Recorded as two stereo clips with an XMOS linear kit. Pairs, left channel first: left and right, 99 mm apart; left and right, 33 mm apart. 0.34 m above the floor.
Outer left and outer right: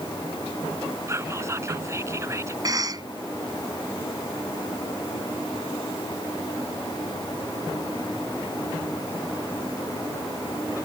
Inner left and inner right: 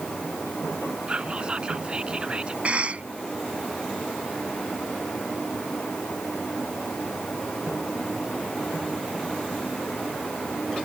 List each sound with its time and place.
1.1 s whispering: 30° right (ahead or behind)
2.6 s a cough: 40° right (ahead or behind)